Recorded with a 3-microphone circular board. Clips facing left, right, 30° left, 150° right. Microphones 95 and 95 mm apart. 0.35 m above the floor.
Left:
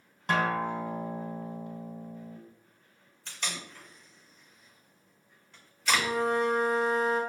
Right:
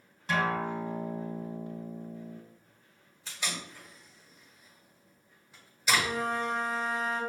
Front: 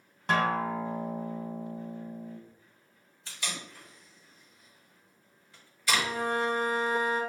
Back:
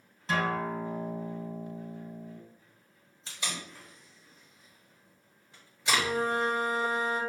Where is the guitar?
60° left, 0.7 m.